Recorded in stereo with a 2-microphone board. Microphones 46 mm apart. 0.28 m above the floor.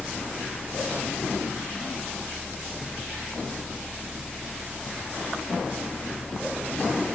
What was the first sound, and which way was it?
Only background noise.